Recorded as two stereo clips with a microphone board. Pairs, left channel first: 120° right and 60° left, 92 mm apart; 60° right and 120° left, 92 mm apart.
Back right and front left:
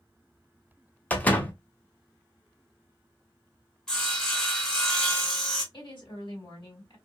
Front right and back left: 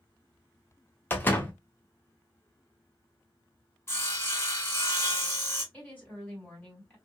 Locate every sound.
1.1 s a door slam: 75° right, 0.6 m
3.9 s sawing: 45° right, 1.0 m
5.7 s a woman speaking: 130° right, 2 m